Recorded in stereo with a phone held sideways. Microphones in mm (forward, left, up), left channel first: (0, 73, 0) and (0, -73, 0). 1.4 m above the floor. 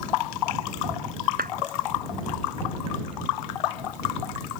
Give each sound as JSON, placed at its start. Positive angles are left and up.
{"t": 1.4, "sound": "a clap", "side_deg": -90}